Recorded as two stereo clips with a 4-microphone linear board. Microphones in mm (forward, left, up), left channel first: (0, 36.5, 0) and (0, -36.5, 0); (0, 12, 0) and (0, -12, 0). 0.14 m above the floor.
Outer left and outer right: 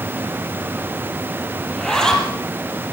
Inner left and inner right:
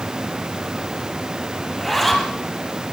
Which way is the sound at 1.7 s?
5° left (ahead or behind).